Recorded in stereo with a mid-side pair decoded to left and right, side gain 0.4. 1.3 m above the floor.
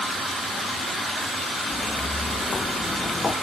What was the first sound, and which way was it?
Footsteps, 30° left.